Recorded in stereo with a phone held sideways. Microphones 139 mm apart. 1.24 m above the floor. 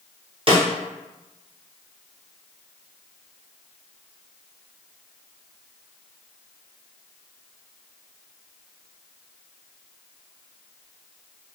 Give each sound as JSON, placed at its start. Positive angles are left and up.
{"t": 0.5, "sound": "a snare drum", "side_deg": -40, "distance_m": 0.7}